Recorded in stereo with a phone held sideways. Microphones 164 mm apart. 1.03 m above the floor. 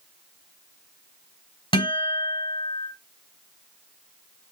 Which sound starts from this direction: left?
A guitar, at 1.7 s.